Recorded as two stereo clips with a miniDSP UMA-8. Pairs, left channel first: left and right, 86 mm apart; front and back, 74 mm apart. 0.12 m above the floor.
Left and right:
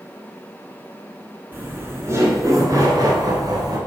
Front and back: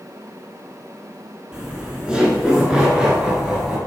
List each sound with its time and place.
1.5 s laughter: 115° right, 1.5 m; by 3.8 s 100° right, 2 m